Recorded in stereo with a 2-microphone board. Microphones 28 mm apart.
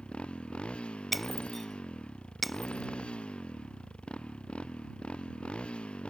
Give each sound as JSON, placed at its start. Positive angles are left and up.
{"t": 0.0, "sound": "a motorcycle", "side_deg": 40}
{"t": 1.1, "sound": "breaking glass", "side_deg": 0}